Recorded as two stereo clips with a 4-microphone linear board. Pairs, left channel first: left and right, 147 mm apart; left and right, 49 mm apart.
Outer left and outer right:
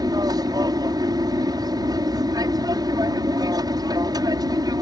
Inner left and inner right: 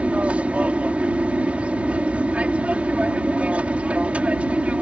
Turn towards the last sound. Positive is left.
turn(degrees=-25)  # may be behind; listen again after turning